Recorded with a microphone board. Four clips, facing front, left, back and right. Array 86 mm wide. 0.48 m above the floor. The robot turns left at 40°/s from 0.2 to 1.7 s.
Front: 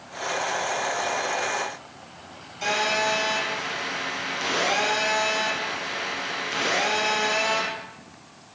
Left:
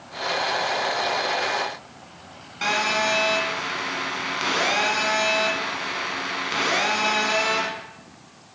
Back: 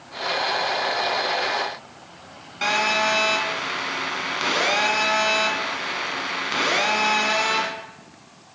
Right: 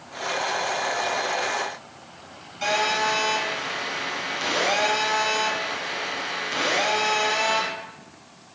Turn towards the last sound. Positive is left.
turn(degrees=150)